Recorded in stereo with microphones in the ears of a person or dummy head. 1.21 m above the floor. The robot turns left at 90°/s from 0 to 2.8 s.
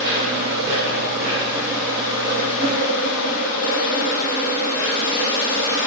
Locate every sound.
0.0 s an insect: 15° right, 1.3 m; by 5.9 s 90° left, 1.3 m